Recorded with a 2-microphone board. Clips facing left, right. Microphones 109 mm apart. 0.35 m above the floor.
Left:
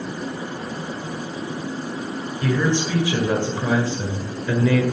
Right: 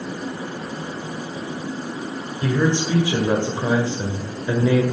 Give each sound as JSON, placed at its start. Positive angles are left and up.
{"t": 2.4, "sound": "a man speaking", "side_deg": -25, "distance_m": 1.9}